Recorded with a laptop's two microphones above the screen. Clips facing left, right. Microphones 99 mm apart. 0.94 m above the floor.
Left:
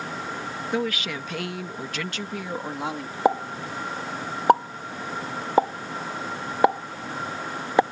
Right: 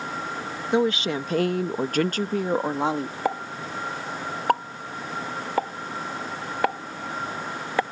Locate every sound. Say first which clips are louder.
0.7 s a woman speaking: right 6 dB; 25° right (ahead or behind); by 3.1 s 30° right (ahead or behind)
3.2 s a pop: left 9 dB; 25° left (ahead or behind)